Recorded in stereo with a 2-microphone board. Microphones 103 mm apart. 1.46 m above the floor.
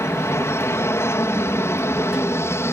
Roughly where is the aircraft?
Left.